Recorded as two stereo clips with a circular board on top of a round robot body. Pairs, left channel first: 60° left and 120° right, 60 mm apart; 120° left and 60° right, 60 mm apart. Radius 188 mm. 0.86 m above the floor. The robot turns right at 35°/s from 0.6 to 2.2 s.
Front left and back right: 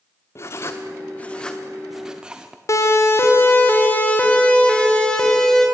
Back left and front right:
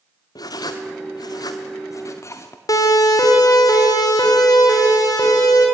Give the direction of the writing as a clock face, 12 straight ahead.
8 o'clock.